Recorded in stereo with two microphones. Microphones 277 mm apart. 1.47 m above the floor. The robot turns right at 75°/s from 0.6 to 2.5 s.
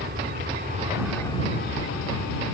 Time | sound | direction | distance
0.0 | an aircraft | 40° right | ?